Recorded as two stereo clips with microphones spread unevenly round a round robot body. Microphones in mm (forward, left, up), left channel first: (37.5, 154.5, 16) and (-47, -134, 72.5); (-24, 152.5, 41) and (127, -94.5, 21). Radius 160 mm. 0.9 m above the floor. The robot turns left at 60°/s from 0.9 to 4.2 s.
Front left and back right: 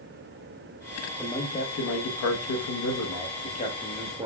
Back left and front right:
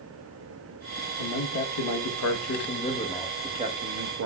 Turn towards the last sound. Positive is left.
turn(degrees=-25)